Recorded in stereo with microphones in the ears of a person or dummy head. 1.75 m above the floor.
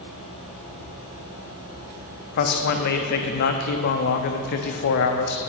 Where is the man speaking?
60° left (ahead or behind), 0.7 m.